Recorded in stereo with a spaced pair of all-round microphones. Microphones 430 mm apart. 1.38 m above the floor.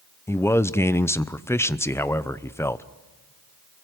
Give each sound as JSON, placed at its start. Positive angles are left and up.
{"t": 0.3, "sound": "a man speaking", "side_deg": 5, "distance_m": 0.6}